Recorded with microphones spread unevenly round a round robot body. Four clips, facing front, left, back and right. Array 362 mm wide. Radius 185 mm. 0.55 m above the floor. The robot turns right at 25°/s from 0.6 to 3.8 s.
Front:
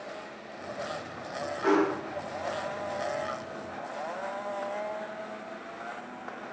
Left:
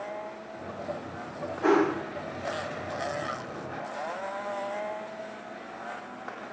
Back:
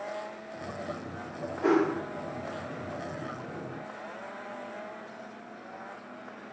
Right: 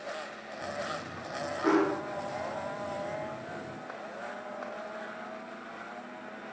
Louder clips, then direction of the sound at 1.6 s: Left 3 dB, even; 145° left.